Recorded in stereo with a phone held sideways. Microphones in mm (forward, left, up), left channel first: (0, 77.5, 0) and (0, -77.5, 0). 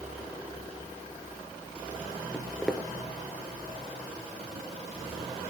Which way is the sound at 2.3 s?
5° right (ahead or behind).